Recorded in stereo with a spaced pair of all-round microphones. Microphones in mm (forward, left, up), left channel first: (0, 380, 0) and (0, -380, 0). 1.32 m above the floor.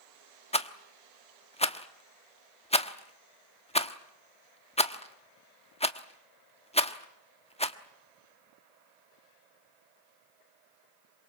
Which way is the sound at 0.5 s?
10° left (ahead or behind).